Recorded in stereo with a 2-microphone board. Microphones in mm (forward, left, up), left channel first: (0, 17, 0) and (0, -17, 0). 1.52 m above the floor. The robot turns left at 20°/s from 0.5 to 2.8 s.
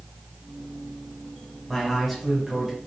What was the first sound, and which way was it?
A man speaking, 10° left (ahead or behind).